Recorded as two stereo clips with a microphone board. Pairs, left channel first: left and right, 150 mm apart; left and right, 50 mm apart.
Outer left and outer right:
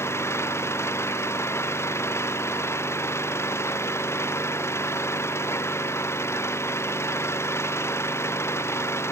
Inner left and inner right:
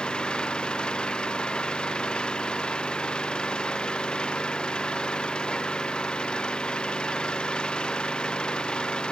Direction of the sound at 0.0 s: 15° left (ahead or behind).